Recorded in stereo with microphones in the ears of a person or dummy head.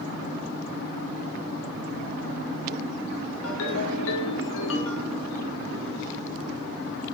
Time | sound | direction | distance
3.4 | a ringtone | 65° left (ahead or behind) | 1.6 m